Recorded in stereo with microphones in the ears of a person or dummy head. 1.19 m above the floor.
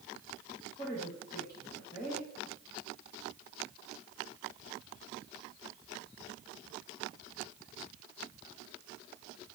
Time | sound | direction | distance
0.8 | a woman speaking | 25° left (ahead or behind) | 1.6 m